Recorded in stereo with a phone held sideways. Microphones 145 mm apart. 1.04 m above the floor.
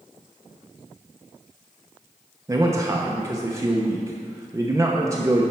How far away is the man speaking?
About 0.7 m.